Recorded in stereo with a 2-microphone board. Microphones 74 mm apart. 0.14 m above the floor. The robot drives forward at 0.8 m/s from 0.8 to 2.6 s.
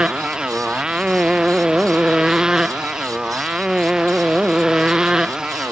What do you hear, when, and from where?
0.0 s a motorcycle: 10° right (ahead or behind)